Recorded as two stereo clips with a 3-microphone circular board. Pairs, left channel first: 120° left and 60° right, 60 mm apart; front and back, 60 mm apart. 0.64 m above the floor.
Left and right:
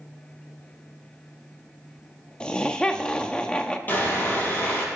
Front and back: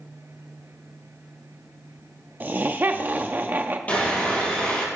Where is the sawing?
60° left, 4 m.